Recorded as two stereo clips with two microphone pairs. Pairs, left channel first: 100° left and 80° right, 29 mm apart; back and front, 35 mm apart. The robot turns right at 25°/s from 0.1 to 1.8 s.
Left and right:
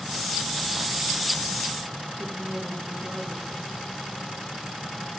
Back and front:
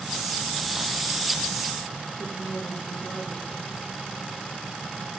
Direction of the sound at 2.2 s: 135° right.